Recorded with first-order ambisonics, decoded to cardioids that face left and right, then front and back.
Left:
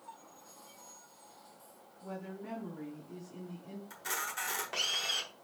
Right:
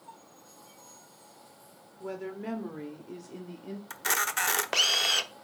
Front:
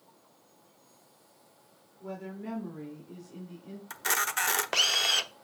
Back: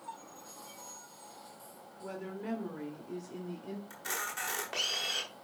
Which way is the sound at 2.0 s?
100° right.